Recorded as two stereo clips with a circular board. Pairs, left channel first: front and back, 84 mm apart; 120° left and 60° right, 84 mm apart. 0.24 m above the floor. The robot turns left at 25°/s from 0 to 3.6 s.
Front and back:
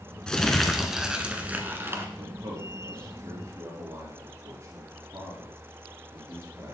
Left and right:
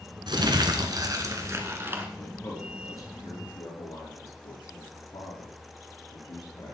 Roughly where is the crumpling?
Right.